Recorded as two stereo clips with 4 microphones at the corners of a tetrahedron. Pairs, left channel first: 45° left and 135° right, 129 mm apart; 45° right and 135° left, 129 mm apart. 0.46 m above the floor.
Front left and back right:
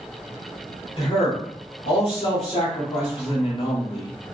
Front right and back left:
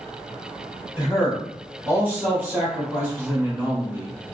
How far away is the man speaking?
About 1.1 m.